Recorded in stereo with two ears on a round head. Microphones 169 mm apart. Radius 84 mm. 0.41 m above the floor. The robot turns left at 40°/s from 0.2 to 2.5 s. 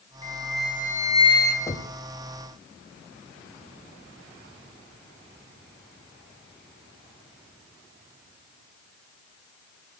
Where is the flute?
15° left, 3.5 m; by 1.6 s 40° right, 3.5 m.